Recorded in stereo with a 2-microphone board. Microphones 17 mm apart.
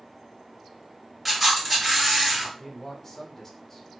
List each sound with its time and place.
1.2 s a camera shutter: centre (ahead or behind), 1.8 m
2.6 s a man speaking: 15° left (ahead or behind), 0.6 m